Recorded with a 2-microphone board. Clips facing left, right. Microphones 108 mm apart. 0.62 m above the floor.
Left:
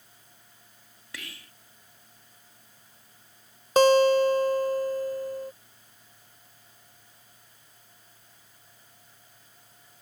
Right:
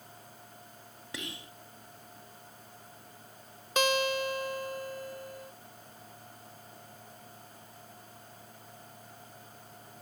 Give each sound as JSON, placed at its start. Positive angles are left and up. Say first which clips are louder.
{"t": 1.1, "sound": "whispering", "louder": "right 3 dB", "side_deg": -20}
{"t": 3.8, "sound": "a guitar", "louder": "left 11 dB", "side_deg": 35}